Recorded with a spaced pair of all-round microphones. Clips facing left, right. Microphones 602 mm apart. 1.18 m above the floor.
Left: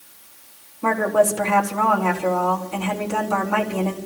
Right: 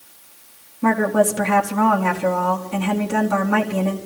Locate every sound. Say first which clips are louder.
0.8 s a woman speaking: right 2 dB; 40° right (ahead or behind), 1.6 m